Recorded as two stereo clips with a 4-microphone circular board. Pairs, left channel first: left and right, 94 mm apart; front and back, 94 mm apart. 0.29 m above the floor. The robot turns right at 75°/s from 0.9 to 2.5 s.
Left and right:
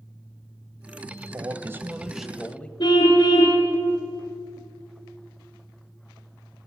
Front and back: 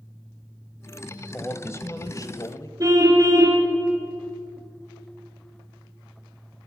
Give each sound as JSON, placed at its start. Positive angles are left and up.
{"t": 1.3, "sound": "a man speaking", "azimuth_deg": -70, "distance_m": 1.3}
{"t": 2.8, "sound": "a car horn", "azimuth_deg": 125, "distance_m": 3.0}